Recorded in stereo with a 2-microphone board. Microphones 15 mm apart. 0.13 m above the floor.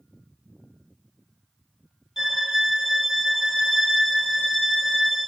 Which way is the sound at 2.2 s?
25° right (ahead or behind).